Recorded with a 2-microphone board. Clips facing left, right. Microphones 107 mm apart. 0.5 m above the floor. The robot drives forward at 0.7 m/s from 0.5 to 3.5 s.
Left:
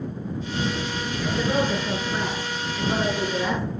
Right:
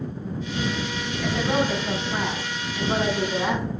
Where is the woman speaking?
80° right, 3.5 m; by 3.6 s 60° right (ahead or behind), 3.5 m.